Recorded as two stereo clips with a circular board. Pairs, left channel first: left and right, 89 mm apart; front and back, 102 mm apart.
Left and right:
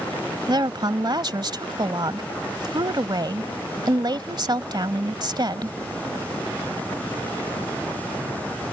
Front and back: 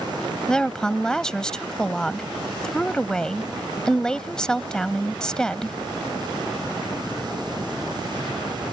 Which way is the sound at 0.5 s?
80° right.